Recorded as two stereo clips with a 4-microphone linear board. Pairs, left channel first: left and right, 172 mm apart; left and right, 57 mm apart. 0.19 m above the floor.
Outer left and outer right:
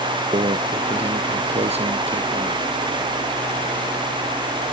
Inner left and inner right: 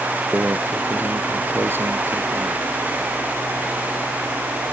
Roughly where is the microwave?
Right.